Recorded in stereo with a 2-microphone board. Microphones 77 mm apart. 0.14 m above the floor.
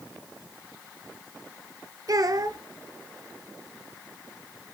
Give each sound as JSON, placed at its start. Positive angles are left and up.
{"t": 2.1, "sound": "a child speaking", "side_deg": -50, "distance_m": 1.1}